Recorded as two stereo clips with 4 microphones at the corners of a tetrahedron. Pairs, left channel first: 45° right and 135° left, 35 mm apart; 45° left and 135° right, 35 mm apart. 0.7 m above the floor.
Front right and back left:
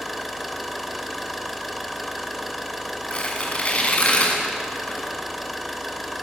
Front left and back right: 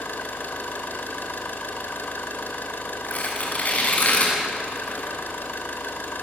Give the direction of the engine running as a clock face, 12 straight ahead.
11 o'clock.